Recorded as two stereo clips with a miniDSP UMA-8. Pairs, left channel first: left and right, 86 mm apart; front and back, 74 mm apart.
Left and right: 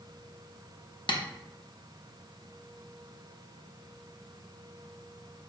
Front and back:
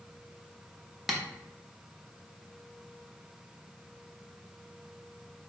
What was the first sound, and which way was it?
Tapping, 95° left.